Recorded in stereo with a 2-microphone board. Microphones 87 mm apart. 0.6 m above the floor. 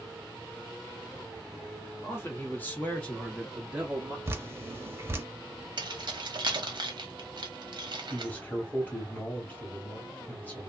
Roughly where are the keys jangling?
Right.